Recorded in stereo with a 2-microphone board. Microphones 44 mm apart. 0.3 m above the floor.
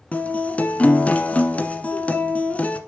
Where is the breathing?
I don't hear breathing.